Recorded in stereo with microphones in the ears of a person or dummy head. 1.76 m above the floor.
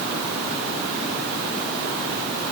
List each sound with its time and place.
Only background noise.